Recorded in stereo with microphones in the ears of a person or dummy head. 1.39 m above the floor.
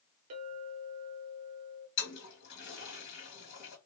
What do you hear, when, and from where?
0.3 s a clink: 30° right (ahead or behind), 0.5 m
2.0 s a toilet flushing: 55° left (ahead or behind), 2 m